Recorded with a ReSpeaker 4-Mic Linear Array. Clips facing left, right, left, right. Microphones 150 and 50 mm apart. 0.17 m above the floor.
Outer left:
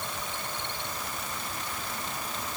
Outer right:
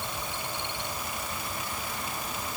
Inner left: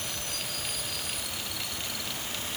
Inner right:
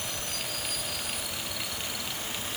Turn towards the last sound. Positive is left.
No sound to turn to.